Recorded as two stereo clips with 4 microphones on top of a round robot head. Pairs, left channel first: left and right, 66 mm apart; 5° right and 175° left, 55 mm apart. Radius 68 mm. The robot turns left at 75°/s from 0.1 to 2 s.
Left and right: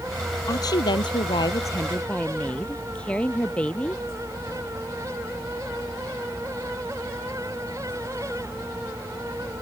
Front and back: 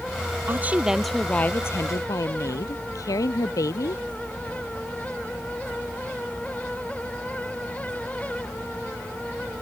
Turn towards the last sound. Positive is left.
turn(degrees=15)